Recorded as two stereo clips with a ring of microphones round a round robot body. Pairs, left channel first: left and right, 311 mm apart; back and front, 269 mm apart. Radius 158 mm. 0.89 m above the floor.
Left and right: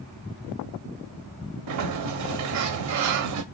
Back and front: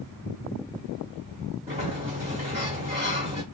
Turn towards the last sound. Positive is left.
turn(degrees=-70)